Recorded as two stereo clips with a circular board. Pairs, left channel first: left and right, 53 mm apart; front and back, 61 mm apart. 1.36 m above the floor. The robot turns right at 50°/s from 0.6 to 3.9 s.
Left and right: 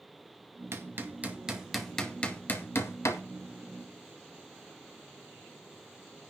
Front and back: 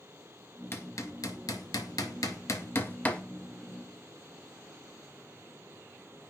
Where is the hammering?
55° right, 2 m; by 3.2 s 75° left, 2 m.